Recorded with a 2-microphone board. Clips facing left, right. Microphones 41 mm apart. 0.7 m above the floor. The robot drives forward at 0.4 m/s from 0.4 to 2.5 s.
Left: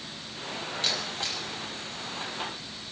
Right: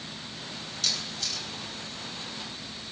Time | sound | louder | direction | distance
0.8 | a camera shutter | left 1 dB | 30° left (ahead or behind) | 4.5 m